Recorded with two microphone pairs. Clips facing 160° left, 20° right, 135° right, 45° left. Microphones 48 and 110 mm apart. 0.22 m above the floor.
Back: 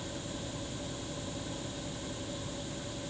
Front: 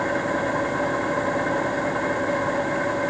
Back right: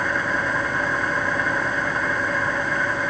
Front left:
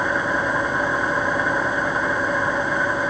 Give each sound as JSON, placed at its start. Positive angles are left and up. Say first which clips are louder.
{"t": 0.0, "sound": "an engine running", "louder": "front 18 dB, front left 2 dB", "azimuth_deg": -30}